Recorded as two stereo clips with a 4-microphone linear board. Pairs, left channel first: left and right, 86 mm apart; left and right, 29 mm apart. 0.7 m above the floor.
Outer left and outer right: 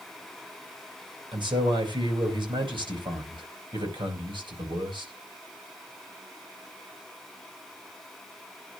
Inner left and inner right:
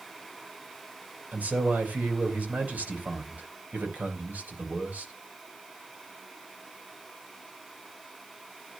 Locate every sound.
1.3 s a man speaking: 70° right (ahead or behind), 3.5 m